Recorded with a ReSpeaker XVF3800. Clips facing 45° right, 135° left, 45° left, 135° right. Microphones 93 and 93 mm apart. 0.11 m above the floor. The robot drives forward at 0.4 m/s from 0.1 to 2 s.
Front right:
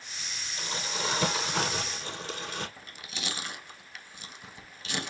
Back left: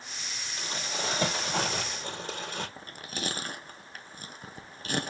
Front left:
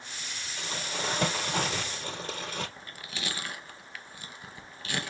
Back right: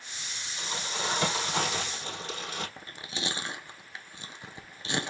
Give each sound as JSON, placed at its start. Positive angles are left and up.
{"t": 0.6, "sound": "crumpling", "azimuth_deg": 80, "distance_m": 4.0}
{"t": 2.8, "sound": "chewing", "azimuth_deg": 165, "distance_m": 0.6}